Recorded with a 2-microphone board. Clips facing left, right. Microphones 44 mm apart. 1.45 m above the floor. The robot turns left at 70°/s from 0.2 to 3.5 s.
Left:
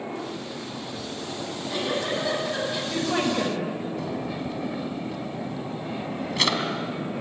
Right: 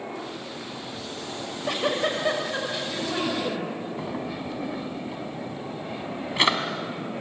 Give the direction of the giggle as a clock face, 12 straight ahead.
3 o'clock.